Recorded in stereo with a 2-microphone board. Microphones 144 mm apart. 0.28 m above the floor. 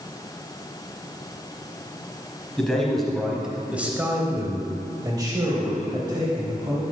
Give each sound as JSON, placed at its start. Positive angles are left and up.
{"t": 2.6, "sound": "a man speaking", "side_deg": 5, "distance_m": 1.6}